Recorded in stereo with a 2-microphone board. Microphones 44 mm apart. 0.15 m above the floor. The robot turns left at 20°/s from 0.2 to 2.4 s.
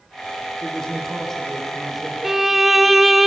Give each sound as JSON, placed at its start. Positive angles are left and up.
{"t": 0.6, "sound": "a man speaking", "azimuth_deg": 20, "distance_m": 7.0}
{"t": 2.2, "sound": "a violin", "side_deg": -5, "distance_m": 0.8}